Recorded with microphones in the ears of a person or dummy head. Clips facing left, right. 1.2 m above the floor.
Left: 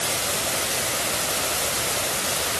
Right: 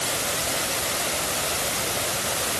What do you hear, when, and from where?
Only background noise.